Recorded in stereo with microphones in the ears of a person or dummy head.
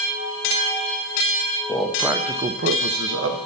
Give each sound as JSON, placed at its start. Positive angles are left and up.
{"t": 1.7, "sound": "a man speaking", "side_deg": 10, "distance_m": 1.2}